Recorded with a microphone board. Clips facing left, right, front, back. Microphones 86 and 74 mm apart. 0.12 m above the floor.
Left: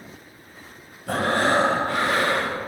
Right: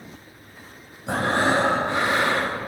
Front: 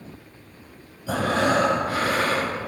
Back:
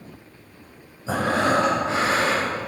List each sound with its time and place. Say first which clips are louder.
1.1 s breathing: even, back 1 dB; 140° right, 1.9 m